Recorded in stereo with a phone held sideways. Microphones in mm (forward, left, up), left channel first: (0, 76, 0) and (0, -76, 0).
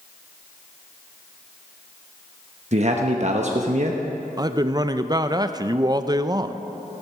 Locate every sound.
2.7 s a man speaking: 50° right (ahead or behind), 1.0 m
4.4 s a man speaking: 25° right (ahead or behind), 0.5 m